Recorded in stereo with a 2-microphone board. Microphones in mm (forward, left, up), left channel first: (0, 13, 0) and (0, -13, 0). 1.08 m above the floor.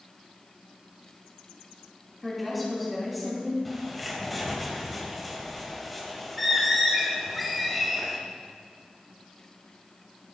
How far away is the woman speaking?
About 3 m.